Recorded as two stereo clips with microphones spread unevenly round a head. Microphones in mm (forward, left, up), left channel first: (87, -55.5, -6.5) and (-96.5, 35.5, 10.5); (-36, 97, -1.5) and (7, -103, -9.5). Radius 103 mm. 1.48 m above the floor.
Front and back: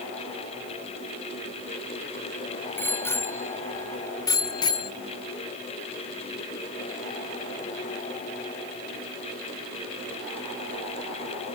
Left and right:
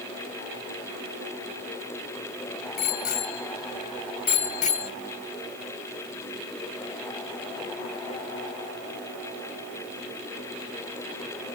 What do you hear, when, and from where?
2.8 s a bicycle bell: 55° left; by 4.9 s 40° left